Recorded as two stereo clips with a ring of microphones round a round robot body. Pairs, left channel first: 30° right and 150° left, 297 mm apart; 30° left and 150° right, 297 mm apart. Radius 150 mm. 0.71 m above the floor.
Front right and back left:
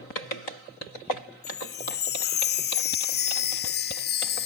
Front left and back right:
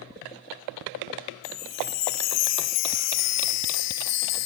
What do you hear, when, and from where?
1.4 s a chime: 20° left, 0.5 m